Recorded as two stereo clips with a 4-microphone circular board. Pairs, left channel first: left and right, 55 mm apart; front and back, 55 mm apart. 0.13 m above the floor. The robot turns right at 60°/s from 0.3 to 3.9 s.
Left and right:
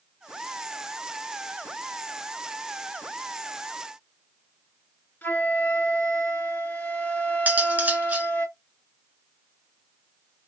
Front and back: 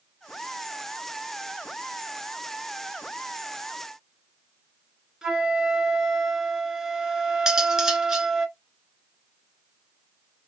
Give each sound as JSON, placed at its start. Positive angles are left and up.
{"t": 5.2, "sound": "a flute", "azimuth_deg": 110, "distance_m": 1.4}
{"t": 7.5, "sound": "cutlery clinking", "azimuth_deg": -110, "distance_m": 0.8}